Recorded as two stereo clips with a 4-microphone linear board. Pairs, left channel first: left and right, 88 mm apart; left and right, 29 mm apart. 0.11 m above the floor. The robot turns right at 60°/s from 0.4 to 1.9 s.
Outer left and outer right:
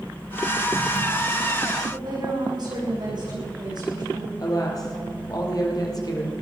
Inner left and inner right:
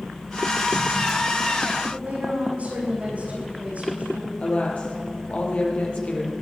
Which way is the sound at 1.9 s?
55° right (ahead or behind).